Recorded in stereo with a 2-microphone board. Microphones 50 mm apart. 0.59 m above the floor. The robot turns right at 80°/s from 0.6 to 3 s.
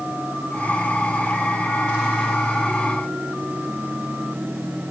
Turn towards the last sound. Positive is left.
No sound to turn to.